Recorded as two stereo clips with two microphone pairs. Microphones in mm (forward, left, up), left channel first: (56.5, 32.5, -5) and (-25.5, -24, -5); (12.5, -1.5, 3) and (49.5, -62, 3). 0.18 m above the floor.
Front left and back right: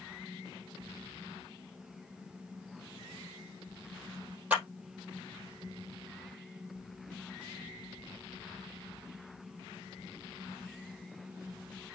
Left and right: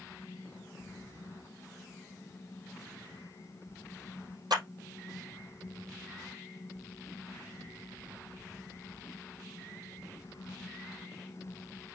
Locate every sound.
4.5 s a clap: 70° right, 4 m